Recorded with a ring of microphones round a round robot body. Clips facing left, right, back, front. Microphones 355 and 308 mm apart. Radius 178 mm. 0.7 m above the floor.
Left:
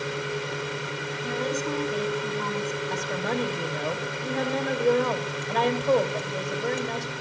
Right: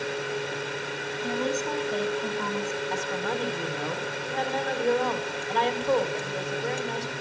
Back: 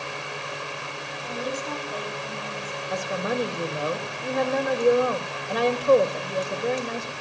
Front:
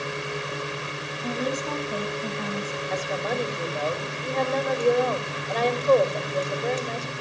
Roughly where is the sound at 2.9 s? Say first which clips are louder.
Left 1 dB, back 2 dB; left.